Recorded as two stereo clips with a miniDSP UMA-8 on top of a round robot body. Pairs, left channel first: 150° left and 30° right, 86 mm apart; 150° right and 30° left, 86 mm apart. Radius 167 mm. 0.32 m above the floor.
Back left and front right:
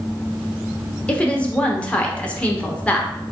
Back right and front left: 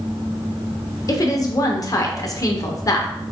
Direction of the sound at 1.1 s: 140° right.